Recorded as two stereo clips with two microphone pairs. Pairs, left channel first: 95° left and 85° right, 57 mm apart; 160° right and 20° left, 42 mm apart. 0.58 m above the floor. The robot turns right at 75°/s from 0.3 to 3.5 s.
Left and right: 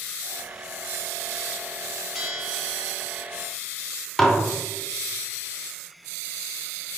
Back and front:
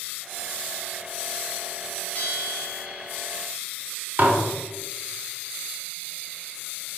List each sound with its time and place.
2.1 s a bell: 170° right, 0.7 m; by 3.3 s 85° right, 0.7 m
4.2 s dishes clattering: 20° left, 0.7 m